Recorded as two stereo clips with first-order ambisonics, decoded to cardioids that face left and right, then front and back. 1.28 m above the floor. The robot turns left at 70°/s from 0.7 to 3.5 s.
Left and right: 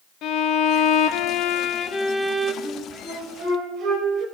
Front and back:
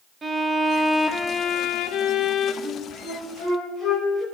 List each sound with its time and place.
0.2 s a violin: 110° left, 0.7 m; by 2.5 s 15° right, 0.7 m
2.6 s a flute: 10° left, 3.5 m; by 4.2 s 50° right, 3.5 m